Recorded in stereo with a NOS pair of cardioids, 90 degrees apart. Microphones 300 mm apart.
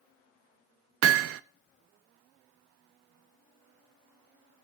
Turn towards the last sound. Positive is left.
turn(degrees=-45)